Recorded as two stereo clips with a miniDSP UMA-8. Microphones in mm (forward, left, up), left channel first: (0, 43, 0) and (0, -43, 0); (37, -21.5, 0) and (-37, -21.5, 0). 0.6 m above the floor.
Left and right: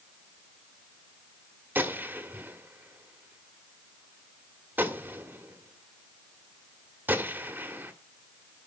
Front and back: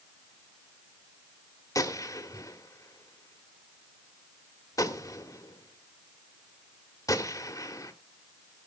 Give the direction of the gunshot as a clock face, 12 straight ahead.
1 o'clock.